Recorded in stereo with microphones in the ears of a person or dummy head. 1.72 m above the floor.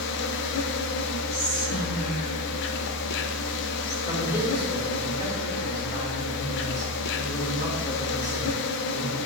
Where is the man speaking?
25° left (ahead or behind), 5.5 m.